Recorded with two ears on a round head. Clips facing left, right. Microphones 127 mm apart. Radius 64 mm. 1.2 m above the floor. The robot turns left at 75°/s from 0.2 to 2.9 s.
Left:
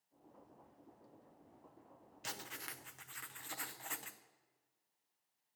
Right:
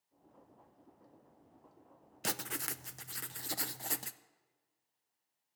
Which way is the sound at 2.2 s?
80° right.